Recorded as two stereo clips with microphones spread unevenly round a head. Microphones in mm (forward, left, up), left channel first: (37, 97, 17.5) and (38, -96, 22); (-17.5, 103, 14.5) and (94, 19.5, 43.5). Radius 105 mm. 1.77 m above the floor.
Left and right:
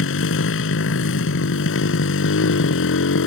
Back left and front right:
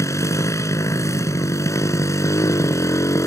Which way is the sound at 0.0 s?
70° left.